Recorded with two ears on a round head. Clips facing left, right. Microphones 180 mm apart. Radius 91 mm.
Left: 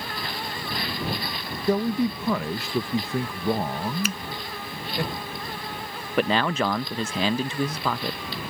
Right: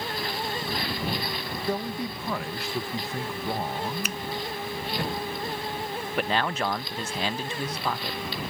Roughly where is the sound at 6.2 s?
Left.